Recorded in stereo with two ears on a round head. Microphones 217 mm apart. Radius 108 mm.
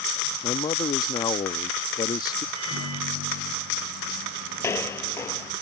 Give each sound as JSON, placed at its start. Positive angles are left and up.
{"t": 0.4, "sound": "a man speaking", "side_deg": 20}
{"t": 2.5, "sound": "a microwave", "side_deg": -75}
{"t": 4.6, "sound": "footsteps", "side_deg": 10}